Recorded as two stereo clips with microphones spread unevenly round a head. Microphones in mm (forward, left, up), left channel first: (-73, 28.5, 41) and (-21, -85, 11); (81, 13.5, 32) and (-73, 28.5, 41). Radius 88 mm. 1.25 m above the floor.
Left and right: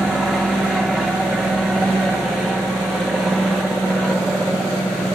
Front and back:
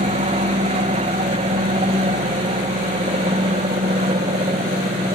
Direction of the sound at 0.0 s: 150° right.